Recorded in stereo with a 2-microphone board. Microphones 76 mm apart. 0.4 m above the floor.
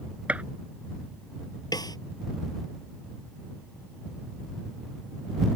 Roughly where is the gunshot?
Centre.